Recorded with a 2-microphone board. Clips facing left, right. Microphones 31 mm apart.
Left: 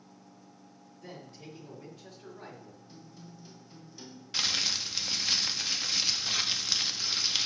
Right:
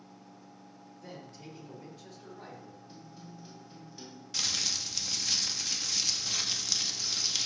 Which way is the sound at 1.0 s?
Centre (ahead or behind).